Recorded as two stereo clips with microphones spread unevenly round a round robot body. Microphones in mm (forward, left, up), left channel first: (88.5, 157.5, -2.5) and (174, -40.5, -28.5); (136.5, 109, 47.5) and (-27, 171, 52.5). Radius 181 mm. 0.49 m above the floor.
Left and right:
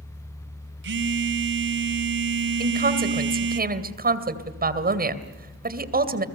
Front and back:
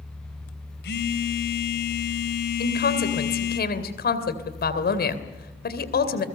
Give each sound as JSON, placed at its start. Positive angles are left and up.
{"t": 0.8, "sound": "a phone buzzing", "azimuth_deg": -45, "distance_m": 1.7}
{"t": 2.6, "sound": "a woman speaking", "azimuth_deg": -30, "distance_m": 2.5}